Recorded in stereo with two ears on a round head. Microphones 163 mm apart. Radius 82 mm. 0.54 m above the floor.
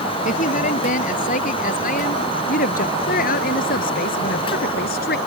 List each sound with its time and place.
0.2 s a woman speaking: 45° left (ahead or behind); by 5.2 s 60° left (ahead or behind)